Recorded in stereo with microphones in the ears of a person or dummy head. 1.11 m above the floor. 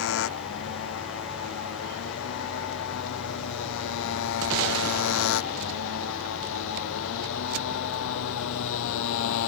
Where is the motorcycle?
70° left (ahead or behind); by 9.5 s 75° left (ahead or behind).